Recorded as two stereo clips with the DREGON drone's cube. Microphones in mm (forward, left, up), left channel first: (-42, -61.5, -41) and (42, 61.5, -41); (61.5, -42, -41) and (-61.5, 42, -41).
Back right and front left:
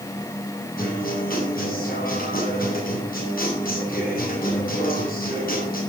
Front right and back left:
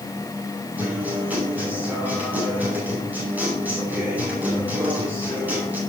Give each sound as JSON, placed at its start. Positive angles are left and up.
{"t": 0.8, "sound": "a guitar", "azimuth_deg": -135, "distance_m": 9.5}